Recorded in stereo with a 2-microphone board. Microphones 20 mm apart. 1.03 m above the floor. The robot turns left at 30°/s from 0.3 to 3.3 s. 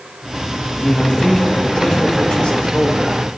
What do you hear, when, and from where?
0.8 s a man speaking: 165° left, 1.5 m; by 3.2 s 90° left, 1.5 m